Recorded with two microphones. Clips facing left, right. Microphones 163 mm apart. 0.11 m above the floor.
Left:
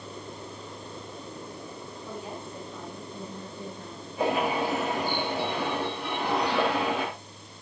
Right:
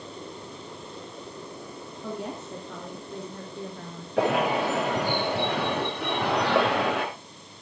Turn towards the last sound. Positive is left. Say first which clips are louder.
# right 3 dB
turn(degrees=-75)  # may be behind; listen again after turning